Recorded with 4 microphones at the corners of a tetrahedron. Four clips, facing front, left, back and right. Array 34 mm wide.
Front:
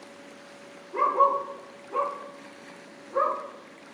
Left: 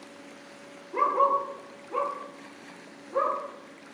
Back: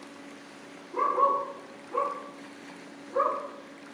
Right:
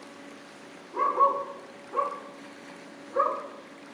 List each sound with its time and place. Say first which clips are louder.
0.9 s a dog barking: even, front 2 dB; 60° left, 5 m; by 3.4 s 65° left, 6.5 m